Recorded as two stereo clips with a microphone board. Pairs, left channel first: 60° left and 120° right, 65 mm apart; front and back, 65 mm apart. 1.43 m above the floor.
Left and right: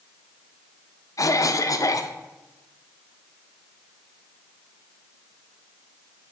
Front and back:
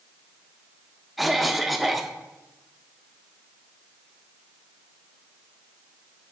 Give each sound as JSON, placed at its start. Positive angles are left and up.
{"t": 1.2, "sound": "a cough", "azimuth_deg": 90, "distance_m": 0.5}